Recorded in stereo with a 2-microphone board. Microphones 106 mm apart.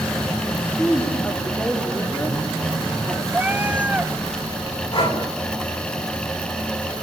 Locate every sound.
0.5 s a woman speaking: 20° left (ahead or behind), 4 m
3.3 s a cat meowing: 15° right (ahead or behind), 1.0 m
4.9 s breathing: 60° left (ahead or behind), 5 m